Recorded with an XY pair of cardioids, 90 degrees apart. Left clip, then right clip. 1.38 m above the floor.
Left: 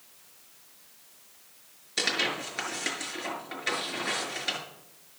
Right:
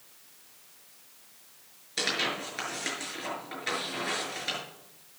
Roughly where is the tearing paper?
Ahead.